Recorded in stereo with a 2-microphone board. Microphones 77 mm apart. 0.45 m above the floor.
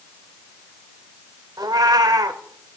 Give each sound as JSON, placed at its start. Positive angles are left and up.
{"t": 1.6, "sound": "a cat meowing", "side_deg": -55, "distance_m": 0.7}